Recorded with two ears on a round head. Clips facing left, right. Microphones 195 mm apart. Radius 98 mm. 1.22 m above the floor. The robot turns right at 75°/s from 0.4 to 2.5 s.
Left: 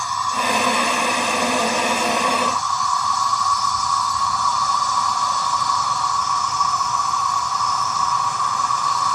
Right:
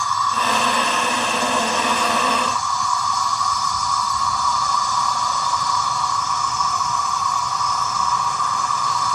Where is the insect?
20° left, 0.8 m; by 9.1 s 175° left, 0.8 m.